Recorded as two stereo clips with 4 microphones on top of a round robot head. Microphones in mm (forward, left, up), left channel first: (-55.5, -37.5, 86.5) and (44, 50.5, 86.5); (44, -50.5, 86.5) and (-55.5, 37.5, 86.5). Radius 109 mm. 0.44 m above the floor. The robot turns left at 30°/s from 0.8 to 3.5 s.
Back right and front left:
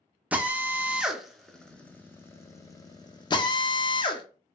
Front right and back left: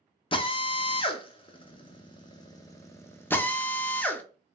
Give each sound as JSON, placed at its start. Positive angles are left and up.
{"t": 0.3, "sound": "a drill", "azimuth_deg": -35, "distance_m": 0.6}